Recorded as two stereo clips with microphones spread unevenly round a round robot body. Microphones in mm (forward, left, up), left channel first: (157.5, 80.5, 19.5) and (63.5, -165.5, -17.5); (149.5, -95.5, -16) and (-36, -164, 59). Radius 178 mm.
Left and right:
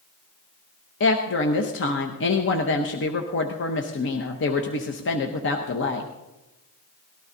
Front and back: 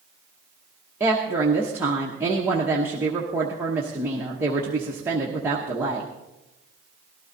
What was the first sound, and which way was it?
A woman speaking, 100° left.